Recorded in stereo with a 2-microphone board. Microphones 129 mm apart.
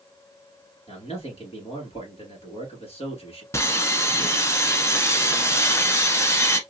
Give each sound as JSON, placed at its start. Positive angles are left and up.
{"t": 0.9, "sound": "a man speaking", "side_deg": 55, "distance_m": 2.0}
{"t": 3.5, "sound": "sawing", "side_deg": 20, "distance_m": 0.9}